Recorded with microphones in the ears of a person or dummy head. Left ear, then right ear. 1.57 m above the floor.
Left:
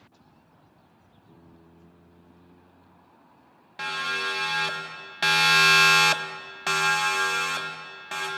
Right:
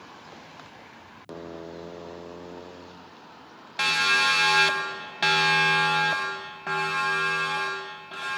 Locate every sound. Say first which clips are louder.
3.8 s a siren: right 7 dB; 25° right (ahead or behind), 3.5 m; by 8.3 s 60° left (ahead or behind), 4.5 m